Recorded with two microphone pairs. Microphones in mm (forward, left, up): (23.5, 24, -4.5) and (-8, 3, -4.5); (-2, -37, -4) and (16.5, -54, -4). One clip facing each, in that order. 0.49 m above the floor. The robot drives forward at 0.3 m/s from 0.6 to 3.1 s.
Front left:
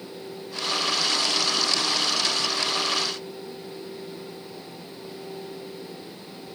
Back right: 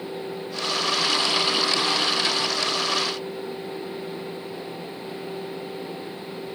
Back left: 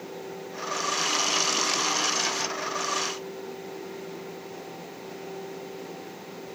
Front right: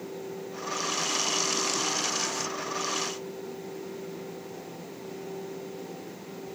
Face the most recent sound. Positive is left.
No sound to turn to.